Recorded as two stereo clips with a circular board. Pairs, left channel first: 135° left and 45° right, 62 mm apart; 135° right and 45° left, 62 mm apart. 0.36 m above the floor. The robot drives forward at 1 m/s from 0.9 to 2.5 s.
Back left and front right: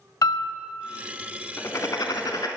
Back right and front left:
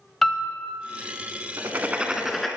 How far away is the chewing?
I don't hear chewing.